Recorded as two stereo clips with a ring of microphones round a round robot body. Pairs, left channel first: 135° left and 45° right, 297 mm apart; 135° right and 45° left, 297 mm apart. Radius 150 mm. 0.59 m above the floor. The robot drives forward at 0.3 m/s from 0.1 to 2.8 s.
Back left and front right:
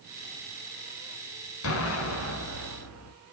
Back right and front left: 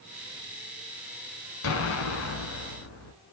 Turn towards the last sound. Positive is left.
turn(degrees=180)